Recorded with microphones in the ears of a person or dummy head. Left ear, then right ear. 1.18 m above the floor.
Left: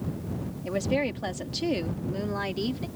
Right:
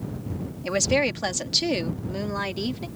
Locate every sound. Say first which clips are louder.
0.6 s a woman speaking: right 5 dB; 55° right (ahead or behind); by 2.9 s 15° right (ahead or behind)